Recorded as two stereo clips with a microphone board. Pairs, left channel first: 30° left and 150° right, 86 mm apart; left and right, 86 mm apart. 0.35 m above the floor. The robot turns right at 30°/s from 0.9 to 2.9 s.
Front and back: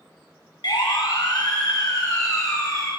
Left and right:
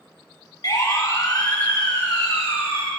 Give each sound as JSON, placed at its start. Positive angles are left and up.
{"t": 0.6, "sound": "a siren", "azimuth_deg": 55, "distance_m": 3.5}